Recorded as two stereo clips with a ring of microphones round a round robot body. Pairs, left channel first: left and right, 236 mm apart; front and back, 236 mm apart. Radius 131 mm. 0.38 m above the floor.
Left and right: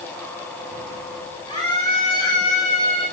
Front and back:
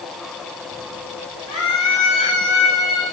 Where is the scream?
15° left, 8 m; by 3.0 s 25° left, 8 m.